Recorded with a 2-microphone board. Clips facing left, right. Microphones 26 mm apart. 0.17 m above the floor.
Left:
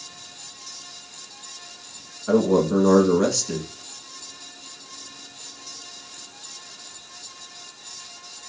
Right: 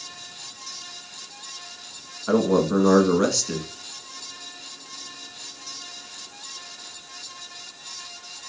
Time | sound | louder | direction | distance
2.3 | a man speaking | left 1 dB | 20° right (ahead or behind) | 1.4 m